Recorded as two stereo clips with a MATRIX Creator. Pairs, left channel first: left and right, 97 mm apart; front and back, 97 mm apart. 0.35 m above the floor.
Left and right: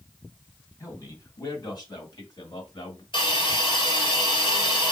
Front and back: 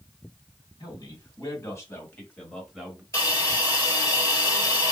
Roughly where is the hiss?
Ahead left.